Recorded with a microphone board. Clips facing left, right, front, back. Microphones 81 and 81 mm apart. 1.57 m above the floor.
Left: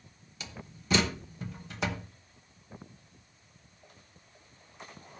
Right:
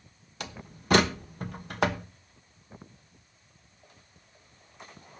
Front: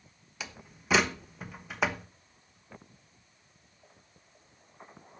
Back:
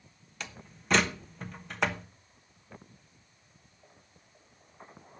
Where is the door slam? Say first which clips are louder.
Right 4 dB, even; 80° right, 1.0 m.